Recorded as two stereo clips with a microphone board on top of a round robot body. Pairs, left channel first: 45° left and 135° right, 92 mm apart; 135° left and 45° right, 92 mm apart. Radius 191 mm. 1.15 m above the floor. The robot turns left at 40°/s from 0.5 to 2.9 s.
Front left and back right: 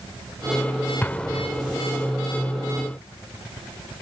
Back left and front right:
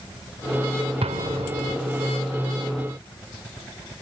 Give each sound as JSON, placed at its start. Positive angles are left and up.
{"t": 1.0, "sound": "an explosion", "azimuth_deg": -25}